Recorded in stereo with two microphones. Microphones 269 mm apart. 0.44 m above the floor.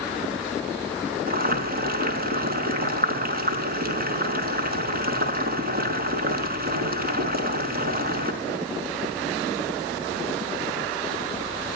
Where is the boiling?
35° right (ahead or behind), 4.5 m.